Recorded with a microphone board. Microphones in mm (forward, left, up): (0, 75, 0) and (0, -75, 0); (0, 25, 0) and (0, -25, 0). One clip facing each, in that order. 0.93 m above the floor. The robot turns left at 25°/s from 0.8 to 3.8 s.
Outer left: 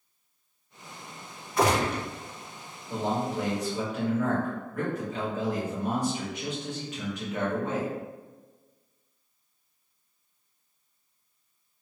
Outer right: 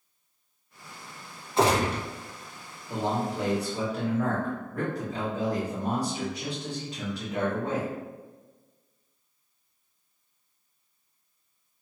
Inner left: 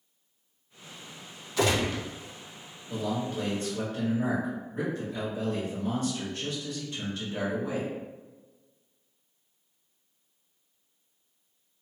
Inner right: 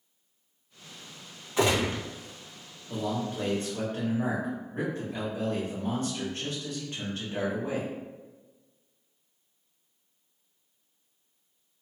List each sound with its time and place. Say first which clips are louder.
1.6 s a gunshot: outer right 1 dB, inner right 1 dB; 25° right (ahead or behind), 0.8 m; by 2.0 s 30° right (ahead or behind), 0.8 m
2.9 s a man speaking: even, even; 15° right (ahead or behind), 1.6 m; by 7.9 s 35° right (ahead or behind), 1.6 m